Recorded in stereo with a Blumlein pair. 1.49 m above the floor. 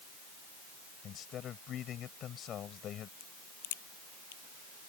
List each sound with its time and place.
1.0 s a man speaking: 30° left
3.2 s a crack: 50° left